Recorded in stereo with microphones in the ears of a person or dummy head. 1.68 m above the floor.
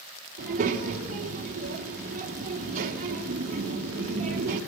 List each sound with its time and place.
0.4 s a child speaking: 50° right (ahead or behind), 3 m